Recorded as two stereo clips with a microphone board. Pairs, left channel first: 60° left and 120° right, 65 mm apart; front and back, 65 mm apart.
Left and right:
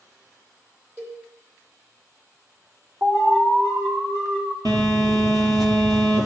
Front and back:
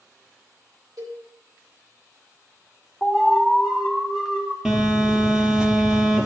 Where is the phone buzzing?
100° right, 2.5 m.